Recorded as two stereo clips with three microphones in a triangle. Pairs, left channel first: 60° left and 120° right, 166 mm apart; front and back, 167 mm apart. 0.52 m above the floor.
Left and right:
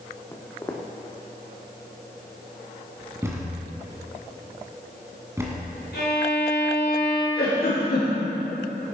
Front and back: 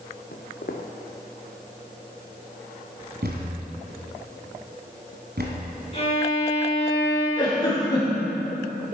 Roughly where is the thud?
Behind.